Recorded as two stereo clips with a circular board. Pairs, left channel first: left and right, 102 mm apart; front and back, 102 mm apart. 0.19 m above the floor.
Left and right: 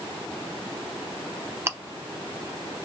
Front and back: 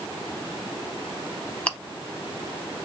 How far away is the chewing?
About 0.7 m.